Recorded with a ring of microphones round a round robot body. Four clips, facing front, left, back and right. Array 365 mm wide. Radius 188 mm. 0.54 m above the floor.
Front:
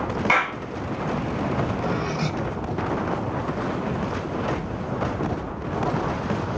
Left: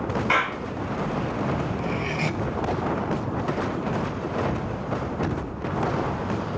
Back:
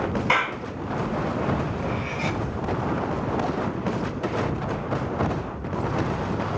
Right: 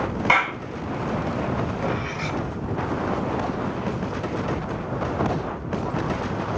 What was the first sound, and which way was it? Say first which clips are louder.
A clap: right 4 dB, front 2 dB; 65° right.